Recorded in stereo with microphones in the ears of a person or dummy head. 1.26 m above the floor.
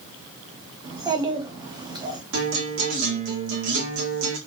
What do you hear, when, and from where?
0.8 s a child speaking: 10° right (ahead or behind), 1.1 m
2.3 s a guitar: 80° right, 1.6 m